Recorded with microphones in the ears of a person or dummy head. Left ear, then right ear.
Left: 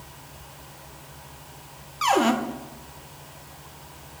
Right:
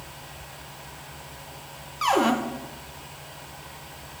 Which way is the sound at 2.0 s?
5° left (ahead or behind).